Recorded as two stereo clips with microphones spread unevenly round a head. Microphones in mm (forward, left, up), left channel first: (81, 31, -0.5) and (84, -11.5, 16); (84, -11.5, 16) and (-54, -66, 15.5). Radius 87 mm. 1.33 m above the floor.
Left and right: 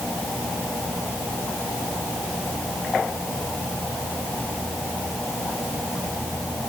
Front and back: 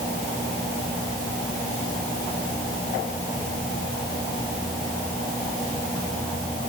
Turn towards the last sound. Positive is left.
No sound to turn to.